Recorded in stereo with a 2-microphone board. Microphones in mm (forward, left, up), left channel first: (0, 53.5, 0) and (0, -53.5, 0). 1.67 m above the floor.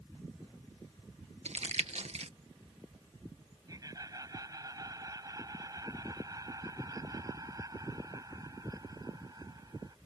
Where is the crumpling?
85° right.